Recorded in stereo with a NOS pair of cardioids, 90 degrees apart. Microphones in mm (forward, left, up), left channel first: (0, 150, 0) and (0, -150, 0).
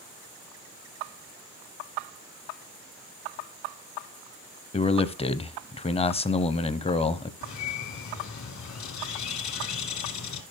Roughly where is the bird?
Ahead left.